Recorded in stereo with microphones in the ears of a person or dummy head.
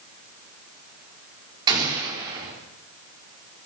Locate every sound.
1.7 s an explosion: 25° right (ahead or behind), 4 m